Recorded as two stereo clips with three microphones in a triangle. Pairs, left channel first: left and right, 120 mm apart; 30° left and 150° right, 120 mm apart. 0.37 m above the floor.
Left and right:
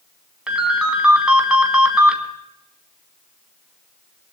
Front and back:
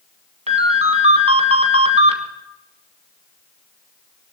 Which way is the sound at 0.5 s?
175° right.